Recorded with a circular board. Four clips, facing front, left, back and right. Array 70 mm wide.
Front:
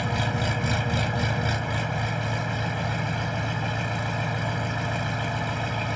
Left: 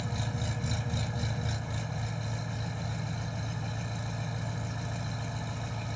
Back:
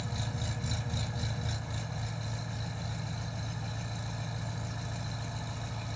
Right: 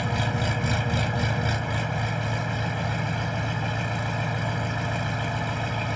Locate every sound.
0.0 s an engine running: 45° right